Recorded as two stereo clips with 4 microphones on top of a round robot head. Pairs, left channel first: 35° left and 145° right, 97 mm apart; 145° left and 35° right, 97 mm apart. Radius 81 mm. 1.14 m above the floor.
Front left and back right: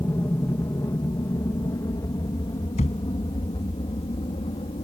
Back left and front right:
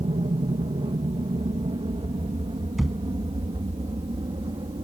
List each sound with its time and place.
0.0 s an aircraft: 25° right; by 4.8 s 5° left
2.8 s a thud: 55° left